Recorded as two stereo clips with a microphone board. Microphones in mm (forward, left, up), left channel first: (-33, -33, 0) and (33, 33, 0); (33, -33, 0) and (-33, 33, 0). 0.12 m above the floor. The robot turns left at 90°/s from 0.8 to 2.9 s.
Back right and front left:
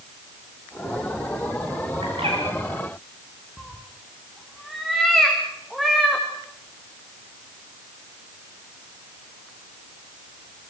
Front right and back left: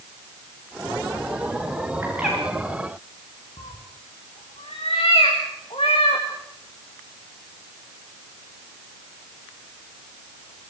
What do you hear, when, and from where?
2.0 s a bird: 75° left, 10 m; by 2.4 s 40° left, 10 m
3.6 s a cat meowing: 45° right, 5 m